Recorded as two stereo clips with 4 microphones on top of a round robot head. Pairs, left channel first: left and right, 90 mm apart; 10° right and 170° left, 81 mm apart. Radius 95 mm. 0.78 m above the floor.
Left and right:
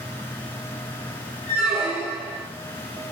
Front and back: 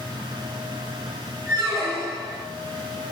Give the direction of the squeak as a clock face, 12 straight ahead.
5 o'clock.